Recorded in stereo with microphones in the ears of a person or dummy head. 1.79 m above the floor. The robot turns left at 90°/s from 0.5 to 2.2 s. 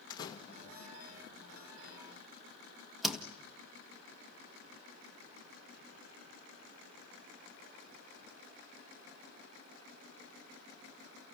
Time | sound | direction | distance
0.1 | a door slam | 25° left (ahead or behind) | 1.6 m